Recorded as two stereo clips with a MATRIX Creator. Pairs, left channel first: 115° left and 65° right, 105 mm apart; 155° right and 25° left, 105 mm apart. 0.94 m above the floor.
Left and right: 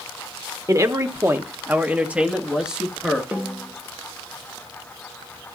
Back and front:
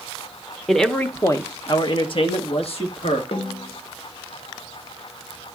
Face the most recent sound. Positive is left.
turn(degrees=-140)